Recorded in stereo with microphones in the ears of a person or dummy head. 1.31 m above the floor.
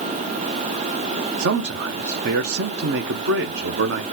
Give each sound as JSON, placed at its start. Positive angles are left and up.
{"t": 1.4, "sound": "a man speaking", "side_deg": -60, "distance_m": 0.5}